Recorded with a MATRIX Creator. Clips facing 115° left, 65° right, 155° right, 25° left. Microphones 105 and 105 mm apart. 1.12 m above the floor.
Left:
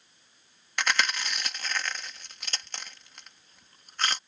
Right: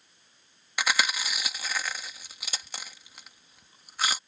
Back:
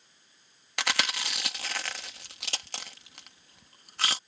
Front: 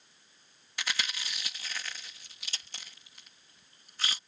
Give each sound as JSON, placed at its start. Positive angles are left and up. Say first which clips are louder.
{"t": 0.8, "sound": "chewing", "louder": "even, back 6 dB", "azimuth_deg": -150}